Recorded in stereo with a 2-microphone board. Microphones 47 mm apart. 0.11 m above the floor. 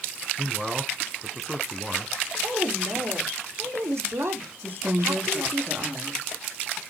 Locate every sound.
0.4 s a man speaking: 10° right (ahead or behind), 1.7 m
2.4 s a woman speaking: 70° right (ahead or behind), 4 m
4.6 s a woman speaking: 45° right (ahead or behind), 5.5 m